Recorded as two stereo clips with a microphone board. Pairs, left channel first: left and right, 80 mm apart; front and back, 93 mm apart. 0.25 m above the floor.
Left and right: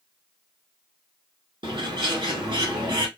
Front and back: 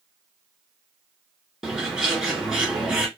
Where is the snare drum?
I don't hear a snare drum.